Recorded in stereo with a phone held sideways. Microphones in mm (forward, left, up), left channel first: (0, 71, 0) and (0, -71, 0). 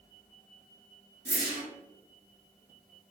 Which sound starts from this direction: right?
A whoosh, at 1.2 s.